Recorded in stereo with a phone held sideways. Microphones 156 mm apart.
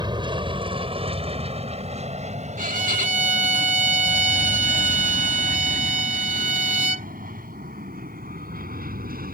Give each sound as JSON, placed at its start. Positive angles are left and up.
{"t": 0.0, "sound": "an aircraft", "side_deg": -30}
{"t": 2.6, "sound": "a violin", "side_deg": -55}